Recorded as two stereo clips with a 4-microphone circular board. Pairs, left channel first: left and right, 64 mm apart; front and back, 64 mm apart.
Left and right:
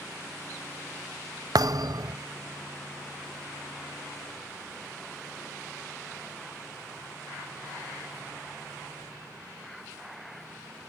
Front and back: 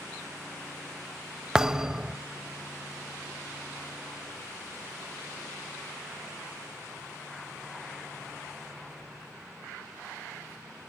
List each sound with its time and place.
1.6 s a thud: 100° right, 0.6 m